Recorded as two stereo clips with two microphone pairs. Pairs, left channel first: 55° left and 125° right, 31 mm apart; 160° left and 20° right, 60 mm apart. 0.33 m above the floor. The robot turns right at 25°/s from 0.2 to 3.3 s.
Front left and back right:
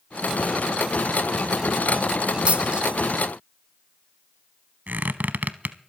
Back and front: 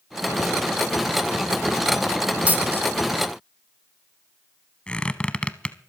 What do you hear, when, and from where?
2.5 s a dropped coin: 85° right, 1.3 m; by 2.9 s 75° right, 1.3 m
4.9 s a squeak: 130° right, 0.7 m